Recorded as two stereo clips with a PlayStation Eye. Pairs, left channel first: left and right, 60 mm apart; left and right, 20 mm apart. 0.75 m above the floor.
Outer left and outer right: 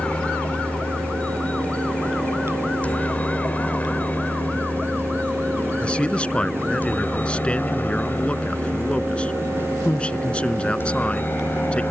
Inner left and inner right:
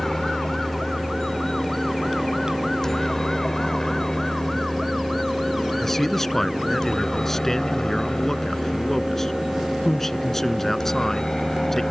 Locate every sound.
0.0 s a helicopter: 20° left (ahead or behind); by 11.9 s 30° left (ahead or behind)
5.8 s a man speaking: 20° left (ahead or behind)